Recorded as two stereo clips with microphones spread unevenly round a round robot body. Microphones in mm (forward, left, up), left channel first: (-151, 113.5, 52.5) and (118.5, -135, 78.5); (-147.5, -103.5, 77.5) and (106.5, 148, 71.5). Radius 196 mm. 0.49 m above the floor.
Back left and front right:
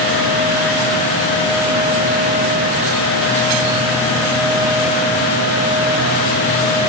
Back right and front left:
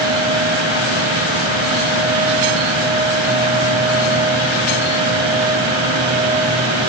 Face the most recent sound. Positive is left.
No sound to turn to.